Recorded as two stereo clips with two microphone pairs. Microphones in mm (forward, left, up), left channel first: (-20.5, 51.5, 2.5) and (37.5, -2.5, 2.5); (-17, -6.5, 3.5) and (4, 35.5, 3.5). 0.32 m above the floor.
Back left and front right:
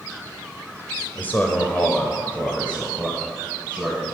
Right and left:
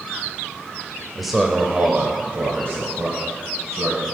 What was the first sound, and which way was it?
A man speaking, 160° left.